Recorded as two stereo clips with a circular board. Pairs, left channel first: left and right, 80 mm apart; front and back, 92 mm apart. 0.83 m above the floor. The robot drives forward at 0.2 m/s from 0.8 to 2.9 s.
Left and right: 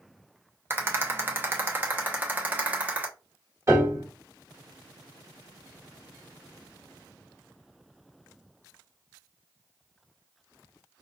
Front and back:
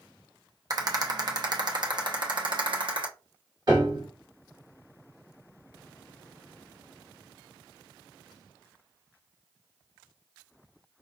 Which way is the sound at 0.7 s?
145° right.